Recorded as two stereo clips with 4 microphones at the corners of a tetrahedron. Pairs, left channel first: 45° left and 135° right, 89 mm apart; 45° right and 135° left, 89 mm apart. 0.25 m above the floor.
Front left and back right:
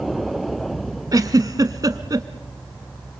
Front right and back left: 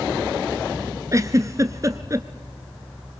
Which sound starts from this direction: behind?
A giggle, at 1.1 s.